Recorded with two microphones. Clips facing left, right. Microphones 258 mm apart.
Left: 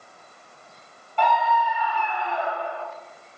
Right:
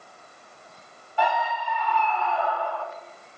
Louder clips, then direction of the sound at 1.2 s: Left 3 dB; 10° right (ahead or behind).